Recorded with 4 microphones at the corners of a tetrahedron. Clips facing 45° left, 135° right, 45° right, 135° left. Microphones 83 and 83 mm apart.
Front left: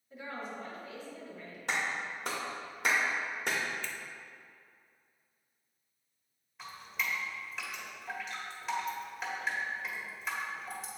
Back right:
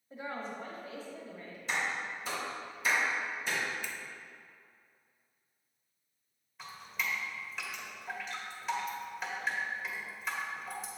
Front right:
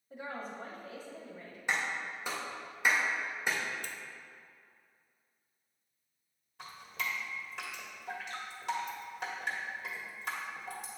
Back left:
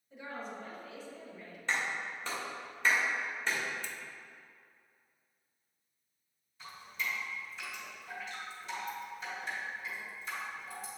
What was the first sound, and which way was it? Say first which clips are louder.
A woman speaking: back right 2 dB, front right 1 dB; 85° right.